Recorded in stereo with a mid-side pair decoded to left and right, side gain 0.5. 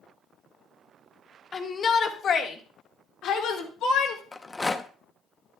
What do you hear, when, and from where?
1.5 s a shout: 40° left, 1.6 m; by 4.2 s 75° left, 2.5 m
4.3 s a rattle: 15° left, 0.8 m